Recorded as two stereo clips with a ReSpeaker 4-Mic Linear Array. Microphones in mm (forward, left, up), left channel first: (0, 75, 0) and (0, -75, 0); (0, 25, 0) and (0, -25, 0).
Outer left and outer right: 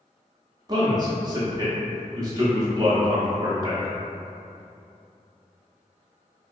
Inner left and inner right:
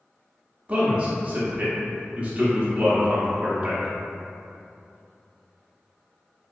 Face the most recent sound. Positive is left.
turn(degrees=-30)  # may be behind; listen again after turning